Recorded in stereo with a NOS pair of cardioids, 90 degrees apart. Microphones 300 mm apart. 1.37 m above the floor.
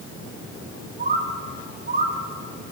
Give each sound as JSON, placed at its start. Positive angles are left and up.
{"t": 1.0, "sound": "a bird", "azimuth_deg": -30, "distance_m": 1.3}